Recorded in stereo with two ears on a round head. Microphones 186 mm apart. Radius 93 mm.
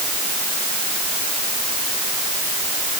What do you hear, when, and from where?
Only background noise.